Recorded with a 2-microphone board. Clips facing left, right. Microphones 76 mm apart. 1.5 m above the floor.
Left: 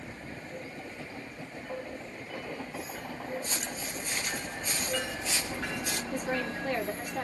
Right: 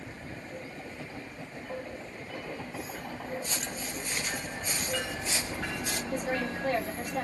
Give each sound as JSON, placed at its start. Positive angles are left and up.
{"t": 3.4, "sound": "footsteps", "side_deg": 20, "distance_m": 1.5}
{"t": 6.1, "sound": "a woman speaking", "side_deg": -65, "distance_m": 1.9}